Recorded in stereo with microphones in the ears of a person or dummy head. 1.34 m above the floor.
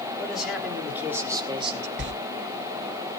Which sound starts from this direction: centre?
A man speaking, at 0.2 s.